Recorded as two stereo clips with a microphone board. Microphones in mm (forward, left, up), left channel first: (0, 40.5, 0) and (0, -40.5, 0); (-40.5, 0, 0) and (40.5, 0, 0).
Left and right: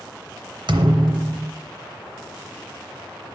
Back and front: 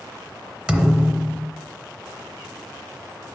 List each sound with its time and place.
0.7 s a thud: 75° right, 0.7 m